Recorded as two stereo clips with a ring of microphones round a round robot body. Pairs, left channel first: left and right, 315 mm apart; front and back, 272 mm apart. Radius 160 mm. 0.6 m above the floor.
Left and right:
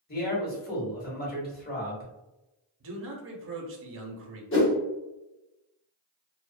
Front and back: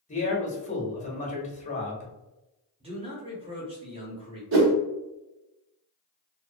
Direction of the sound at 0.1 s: 50° left.